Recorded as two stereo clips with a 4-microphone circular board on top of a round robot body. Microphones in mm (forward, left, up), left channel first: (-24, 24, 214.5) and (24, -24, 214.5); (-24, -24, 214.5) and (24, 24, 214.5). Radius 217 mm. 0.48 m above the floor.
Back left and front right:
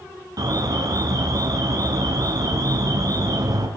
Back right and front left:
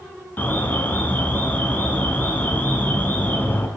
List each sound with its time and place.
0.4 s an alarm: 70° right, 5.5 m